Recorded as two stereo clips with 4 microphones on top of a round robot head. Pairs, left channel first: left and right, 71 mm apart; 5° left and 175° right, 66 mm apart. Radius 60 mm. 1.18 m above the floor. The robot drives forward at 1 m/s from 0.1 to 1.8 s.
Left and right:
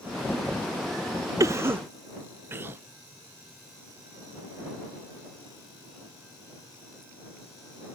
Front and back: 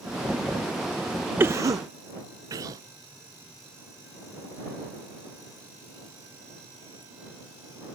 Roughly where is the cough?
Behind right.